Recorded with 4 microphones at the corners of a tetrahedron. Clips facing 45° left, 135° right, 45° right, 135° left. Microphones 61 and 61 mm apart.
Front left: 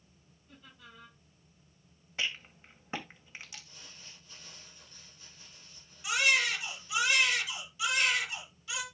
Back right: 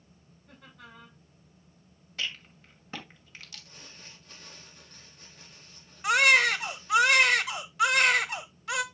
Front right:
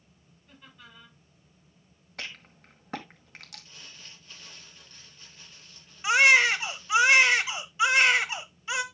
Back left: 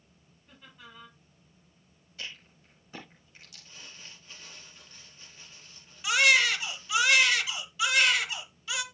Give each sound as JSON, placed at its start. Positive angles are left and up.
{"t": 0.5, "sound": "laughter", "azimuth_deg": -145, "distance_m": 6.0}
{"t": 2.2, "sound": "a rattle", "azimuth_deg": -25, "distance_m": 1.9}
{"t": 3.6, "sound": "crumpling", "azimuth_deg": -150, "distance_m": 5.5}
{"t": 6.0, "sound": "a baby crying", "azimuth_deg": -105, "distance_m": 0.9}